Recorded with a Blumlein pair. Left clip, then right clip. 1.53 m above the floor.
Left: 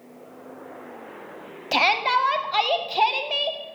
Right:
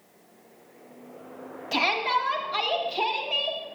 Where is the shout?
20° left, 1.3 m.